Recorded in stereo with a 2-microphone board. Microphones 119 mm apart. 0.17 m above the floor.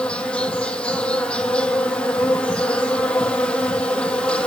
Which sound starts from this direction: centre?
An insect, at 0.0 s.